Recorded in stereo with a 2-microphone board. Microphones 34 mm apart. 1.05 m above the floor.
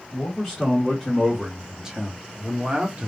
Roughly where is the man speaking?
Centre.